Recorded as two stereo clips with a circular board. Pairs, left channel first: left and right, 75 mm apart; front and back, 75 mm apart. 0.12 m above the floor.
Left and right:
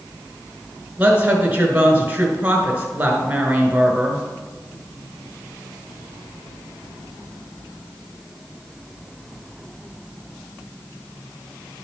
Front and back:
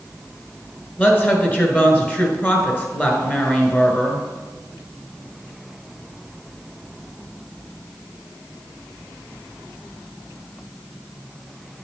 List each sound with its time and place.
1.0 s a woman speaking: 45° right, 1.5 m